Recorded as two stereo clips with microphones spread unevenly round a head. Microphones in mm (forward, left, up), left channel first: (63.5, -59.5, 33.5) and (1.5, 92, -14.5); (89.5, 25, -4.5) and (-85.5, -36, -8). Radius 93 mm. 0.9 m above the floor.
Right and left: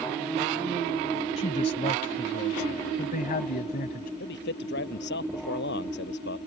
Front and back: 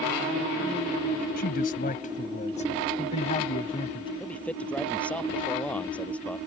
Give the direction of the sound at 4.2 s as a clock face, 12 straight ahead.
2 o'clock.